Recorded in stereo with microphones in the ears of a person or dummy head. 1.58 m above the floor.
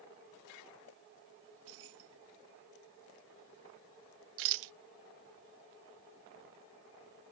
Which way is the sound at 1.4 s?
70° right (ahead or behind).